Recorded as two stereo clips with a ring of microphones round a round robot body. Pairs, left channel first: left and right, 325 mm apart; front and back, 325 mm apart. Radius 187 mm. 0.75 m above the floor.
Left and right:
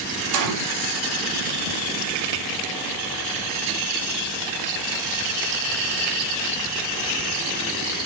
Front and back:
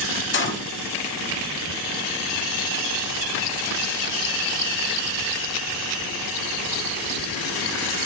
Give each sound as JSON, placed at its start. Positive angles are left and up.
{"t": 0.3, "sound": "a gunshot", "azimuth_deg": -55, "distance_m": 2.5}